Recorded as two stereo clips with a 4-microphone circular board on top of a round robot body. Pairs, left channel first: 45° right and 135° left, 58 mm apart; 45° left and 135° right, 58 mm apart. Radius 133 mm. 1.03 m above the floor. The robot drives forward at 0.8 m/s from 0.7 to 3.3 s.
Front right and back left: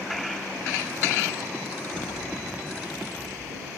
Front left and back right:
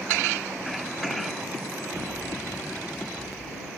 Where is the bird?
15° left, 2.5 m; by 3.7 s 30° left, 1.3 m.